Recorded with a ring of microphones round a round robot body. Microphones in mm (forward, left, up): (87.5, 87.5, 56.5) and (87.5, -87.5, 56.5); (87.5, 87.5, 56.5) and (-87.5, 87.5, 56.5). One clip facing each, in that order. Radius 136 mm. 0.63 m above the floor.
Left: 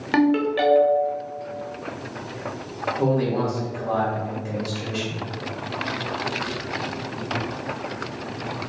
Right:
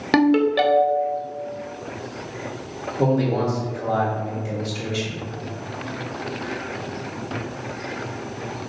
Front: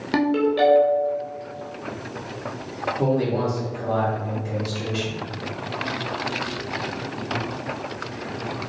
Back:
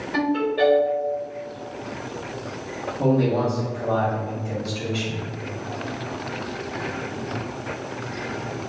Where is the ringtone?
40° right, 0.7 m.